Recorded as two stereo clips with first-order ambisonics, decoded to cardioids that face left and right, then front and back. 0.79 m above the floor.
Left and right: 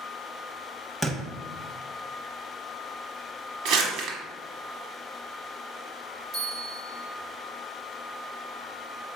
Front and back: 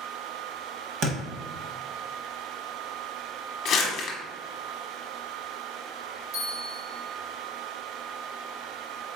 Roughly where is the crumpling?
Ahead right.